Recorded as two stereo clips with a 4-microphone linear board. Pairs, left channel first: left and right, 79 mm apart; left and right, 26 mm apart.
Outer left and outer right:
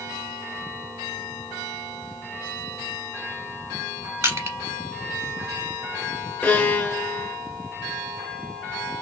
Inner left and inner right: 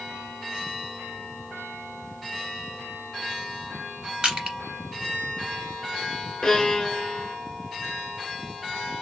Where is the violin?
20° left (ahead or behind), 1.7 m.